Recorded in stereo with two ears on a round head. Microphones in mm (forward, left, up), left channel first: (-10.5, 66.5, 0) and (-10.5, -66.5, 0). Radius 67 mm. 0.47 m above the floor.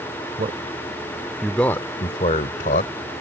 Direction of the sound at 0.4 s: 45° right (ahead or behind).